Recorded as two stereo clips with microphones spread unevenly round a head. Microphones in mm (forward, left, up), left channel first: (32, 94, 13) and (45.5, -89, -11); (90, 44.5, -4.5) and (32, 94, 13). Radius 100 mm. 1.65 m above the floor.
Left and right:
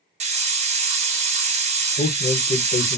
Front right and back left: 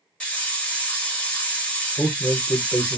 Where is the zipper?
I don't hear a zipper.